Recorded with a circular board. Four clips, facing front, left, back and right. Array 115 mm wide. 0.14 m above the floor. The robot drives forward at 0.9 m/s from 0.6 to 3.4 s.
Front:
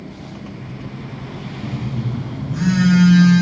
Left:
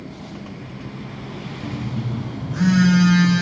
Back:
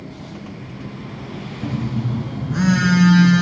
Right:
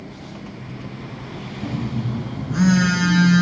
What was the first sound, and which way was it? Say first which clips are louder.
A phone buzzing: right 3 dB, back 3 dB; 125° right.